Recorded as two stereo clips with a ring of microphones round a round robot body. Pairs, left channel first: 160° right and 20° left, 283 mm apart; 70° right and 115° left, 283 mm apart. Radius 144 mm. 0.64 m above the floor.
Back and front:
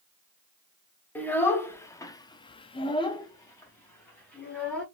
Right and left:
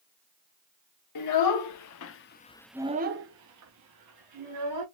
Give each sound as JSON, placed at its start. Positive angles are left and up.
{"t": 1.1, "sound": "a child speaking", "azimuth_deg": -75, "distance_m": 1.2}